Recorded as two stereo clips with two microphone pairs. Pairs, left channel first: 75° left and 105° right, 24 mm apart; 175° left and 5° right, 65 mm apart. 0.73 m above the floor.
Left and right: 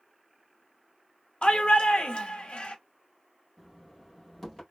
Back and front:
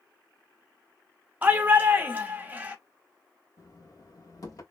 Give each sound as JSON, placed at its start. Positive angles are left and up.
{"t": 1.4, "sound": "a shout", "azimuth_deg": 55, "distance_m": 1.0}
{"t": 3.6, "sound": "knocking", "azimuth_deg": 155, "distance_m": 1.7}